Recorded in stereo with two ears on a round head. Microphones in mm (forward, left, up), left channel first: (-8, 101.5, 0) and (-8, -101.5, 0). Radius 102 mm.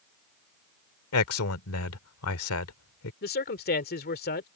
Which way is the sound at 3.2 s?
45° left (ahead or behind).